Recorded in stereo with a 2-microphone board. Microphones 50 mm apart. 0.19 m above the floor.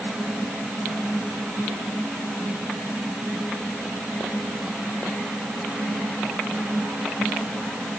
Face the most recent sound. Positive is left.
No sound to turn to.